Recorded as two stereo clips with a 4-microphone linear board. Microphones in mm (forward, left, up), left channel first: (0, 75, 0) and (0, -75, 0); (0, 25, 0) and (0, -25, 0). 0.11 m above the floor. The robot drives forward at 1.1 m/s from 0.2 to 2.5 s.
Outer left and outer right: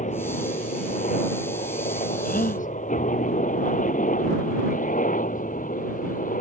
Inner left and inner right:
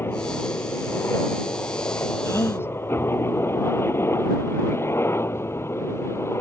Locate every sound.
0.0 s a helicopter: 55° left (ahead or behind); by 6.4 s 60° left (ahead or behind)
2.2 s a gasp: 70° left (ahead or behind)